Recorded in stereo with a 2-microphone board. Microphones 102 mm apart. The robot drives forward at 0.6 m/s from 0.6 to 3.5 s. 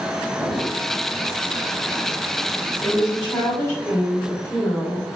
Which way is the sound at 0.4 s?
Centre (ahead or behind).